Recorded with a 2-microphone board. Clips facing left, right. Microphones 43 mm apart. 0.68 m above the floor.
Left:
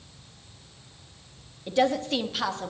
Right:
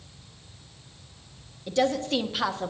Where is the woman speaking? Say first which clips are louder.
Left 1 dB; 15° left (ahead or behind), 0.8 m; by 2.7 s 10° right (ahead or behind), 1.3 m.